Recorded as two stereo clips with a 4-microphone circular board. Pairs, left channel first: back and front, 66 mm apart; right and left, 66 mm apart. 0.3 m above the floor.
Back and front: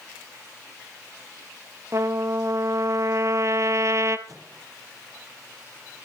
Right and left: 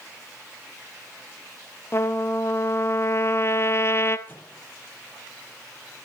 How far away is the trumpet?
About 1.0 m.